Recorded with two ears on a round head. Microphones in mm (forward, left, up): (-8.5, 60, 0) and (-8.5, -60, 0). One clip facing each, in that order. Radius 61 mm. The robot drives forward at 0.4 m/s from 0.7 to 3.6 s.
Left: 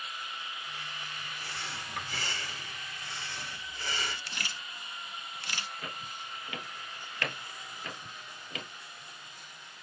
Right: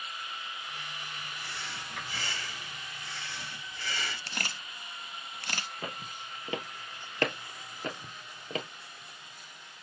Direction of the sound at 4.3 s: 40° right (ahead or behind).